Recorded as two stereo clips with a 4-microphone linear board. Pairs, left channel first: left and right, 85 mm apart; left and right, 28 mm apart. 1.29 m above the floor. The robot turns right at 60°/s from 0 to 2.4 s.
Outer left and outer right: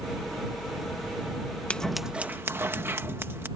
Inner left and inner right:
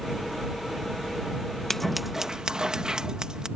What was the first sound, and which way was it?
Scissors, 165° left.